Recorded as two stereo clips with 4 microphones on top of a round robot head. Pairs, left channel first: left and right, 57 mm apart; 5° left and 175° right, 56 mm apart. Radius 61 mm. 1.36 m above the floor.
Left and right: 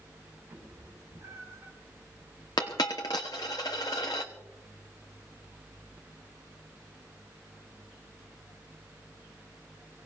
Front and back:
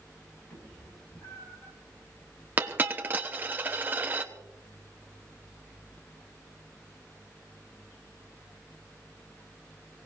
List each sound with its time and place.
0.5 s a cat meowing: 50° right, 6 m
2.6 s a dropped coin: 130° left, 1.0 m